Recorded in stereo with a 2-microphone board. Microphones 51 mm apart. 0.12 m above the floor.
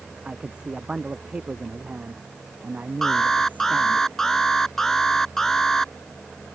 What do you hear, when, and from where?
0.2 s a man speaking: 20° right (ahead or behind); by 4.0 s 35° right (ahead or behind)
3.0 s an alarm: 10° left (ahead or behind)